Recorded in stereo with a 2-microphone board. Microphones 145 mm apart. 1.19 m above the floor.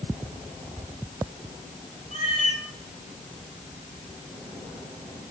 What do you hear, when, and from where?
2.1 s a cat meowing: 50° left (ahead or behind), 2.5 m